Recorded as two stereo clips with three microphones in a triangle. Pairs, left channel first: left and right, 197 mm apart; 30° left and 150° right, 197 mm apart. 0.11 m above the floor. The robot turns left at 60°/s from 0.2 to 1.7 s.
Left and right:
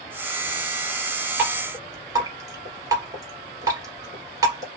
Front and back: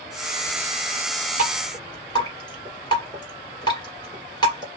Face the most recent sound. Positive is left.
turn(degrees=-25)